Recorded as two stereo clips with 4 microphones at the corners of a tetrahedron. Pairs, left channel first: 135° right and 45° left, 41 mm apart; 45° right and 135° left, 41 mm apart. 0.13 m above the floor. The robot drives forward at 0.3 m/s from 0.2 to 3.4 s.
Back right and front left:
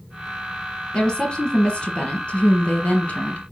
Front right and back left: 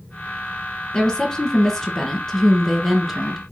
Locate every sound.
0.9 s a woman speaking: 90° right, 1.8 m; by 3.4 s 130° right, 1.9 m